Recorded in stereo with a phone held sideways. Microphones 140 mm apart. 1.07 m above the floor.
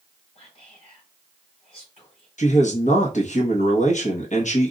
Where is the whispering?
50° left (ahead or behind), 3.5 m.